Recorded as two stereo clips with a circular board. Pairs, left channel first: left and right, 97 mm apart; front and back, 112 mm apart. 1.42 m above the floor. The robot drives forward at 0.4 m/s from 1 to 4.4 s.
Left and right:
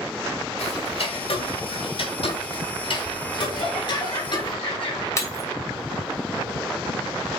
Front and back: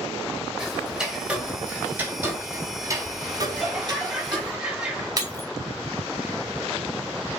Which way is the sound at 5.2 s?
135° left.